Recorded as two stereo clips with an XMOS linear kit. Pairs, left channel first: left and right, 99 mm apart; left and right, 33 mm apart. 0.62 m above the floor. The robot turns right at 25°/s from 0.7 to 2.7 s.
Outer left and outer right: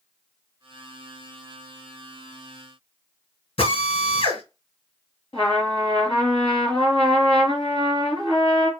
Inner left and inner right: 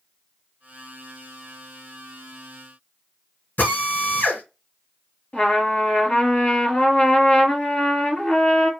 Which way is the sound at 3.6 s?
85° left.